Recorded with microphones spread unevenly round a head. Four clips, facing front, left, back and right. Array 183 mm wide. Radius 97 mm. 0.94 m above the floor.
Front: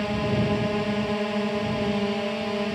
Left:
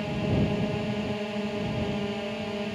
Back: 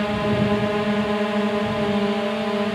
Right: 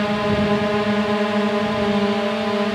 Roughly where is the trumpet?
No trumpet in this recording.